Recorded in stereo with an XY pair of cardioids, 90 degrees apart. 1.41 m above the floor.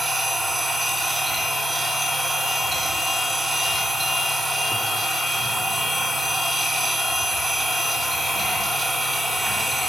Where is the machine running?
25° right, 3 m.